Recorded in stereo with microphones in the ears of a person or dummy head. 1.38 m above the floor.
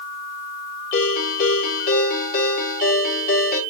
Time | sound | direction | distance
0.9 | a ringtone | 45° left (ahead or behind) | 4 m